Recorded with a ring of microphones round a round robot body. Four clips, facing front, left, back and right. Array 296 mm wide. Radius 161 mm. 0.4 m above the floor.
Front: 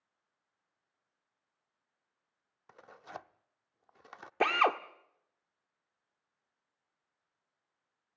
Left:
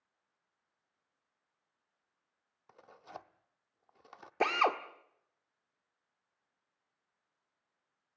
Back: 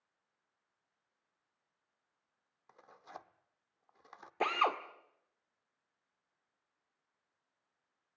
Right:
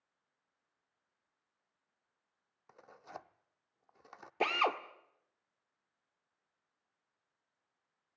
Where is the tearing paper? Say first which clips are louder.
Even, front 5 dB; 5° right, 0.8 m.